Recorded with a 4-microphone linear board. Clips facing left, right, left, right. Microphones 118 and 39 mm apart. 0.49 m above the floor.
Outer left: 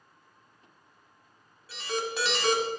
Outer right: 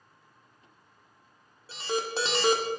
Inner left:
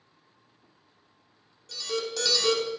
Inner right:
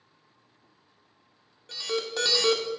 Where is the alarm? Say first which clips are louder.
Outer right 2 dB, inner right 1 dB; 30° right (ahead or behind), 1.0 m.